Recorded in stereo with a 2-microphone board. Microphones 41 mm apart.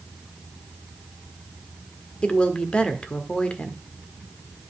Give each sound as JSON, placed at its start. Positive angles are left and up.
{"t": 2.2, "sound": "a woman speaking", "side_deg": 30, "distance_m": 1.4}